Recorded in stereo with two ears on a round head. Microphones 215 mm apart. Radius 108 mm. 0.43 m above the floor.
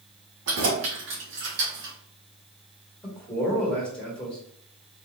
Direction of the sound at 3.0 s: 5° left (ahead or behind).